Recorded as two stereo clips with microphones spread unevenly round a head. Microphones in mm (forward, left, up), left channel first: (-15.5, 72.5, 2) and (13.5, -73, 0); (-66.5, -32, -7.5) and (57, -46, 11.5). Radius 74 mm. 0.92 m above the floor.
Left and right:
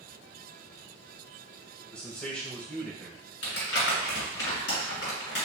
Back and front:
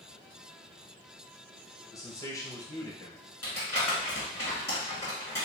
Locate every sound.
1.9 s a man speaking: 175° right, 1.0 m
3.4 s crumpling: 100° left, 2 m